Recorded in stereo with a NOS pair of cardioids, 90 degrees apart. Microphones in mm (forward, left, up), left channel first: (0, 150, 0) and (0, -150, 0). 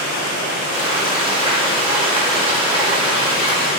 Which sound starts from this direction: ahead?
Frying, at 0.7 s.